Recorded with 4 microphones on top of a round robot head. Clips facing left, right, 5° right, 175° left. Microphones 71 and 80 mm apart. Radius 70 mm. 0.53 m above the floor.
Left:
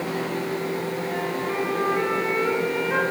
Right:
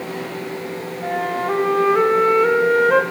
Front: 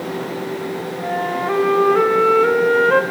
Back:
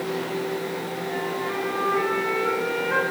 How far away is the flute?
About 1.5 m.